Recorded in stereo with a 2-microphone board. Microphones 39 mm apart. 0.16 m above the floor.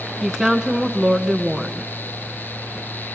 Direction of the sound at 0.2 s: Centre (ahead or behind).